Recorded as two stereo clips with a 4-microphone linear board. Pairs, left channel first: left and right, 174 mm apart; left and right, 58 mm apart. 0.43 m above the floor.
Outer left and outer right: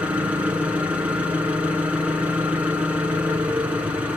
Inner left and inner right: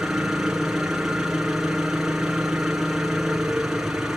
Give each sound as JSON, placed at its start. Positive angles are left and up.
{"t": 0.0, "sound": "an engine running", "side_deg": -10, "distance_m": 5.5}